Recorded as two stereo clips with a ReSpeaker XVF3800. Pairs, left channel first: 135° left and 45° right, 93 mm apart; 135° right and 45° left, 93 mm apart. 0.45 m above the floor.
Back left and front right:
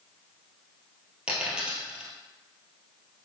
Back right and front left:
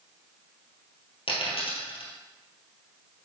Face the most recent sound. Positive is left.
turn(degrees=-125)